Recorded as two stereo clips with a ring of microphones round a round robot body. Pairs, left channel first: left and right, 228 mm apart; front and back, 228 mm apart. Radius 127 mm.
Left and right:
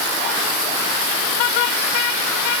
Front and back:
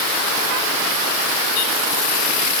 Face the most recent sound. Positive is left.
No sound to turn to.